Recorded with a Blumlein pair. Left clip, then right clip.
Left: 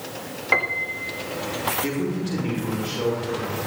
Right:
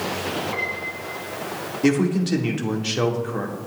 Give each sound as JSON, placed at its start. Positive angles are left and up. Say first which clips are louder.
{"t": 0.5, "sound": "a piano", "louder": "left 5 dB", "azimuth_deg": 45, "distance_m": 1.4}
{"t": 1.8, "sound": "a man speaking", "louder": "right 6 dB", "azimuth_deg": -25, "distance_m": 2.5}